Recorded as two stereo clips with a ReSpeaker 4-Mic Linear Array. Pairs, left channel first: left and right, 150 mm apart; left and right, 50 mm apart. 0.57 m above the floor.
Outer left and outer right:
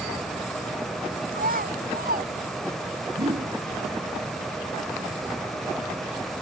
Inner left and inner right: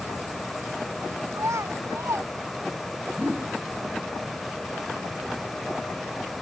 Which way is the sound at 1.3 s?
75° right (ahead or behind).